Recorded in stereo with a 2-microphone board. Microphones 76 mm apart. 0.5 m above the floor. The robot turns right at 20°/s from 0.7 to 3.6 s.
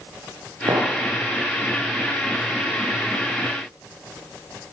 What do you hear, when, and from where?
0.7 s a clink: 65° right (ahead or behind), 5.5 m; by 0.9 s 70° right (ahead or behind), 5.5 m